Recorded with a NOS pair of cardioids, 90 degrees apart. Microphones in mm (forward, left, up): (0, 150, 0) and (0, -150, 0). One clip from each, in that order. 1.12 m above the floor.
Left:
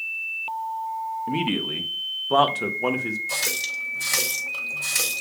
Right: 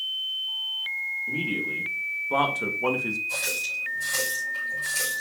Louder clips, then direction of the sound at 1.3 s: Left 2 dB; 60° left.